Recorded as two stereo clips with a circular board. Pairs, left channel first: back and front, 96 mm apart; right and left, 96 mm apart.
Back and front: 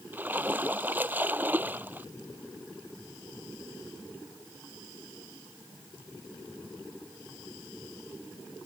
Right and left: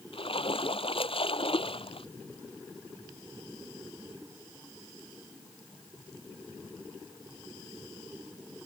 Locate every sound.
0.1 s a splash: 70° right